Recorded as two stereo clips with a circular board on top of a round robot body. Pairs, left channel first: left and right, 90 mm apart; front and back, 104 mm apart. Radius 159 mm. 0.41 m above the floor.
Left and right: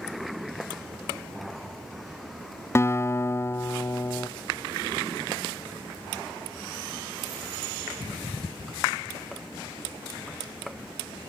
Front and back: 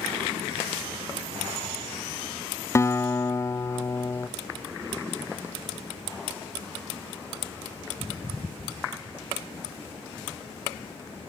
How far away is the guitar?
About 0.8 m.